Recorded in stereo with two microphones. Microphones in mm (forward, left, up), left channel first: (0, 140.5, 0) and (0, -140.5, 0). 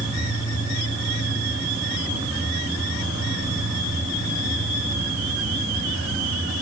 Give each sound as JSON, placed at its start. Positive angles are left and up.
{"t": 0.0, "sound": "an insect", "side_deg": -15, "distance_m": 5.0}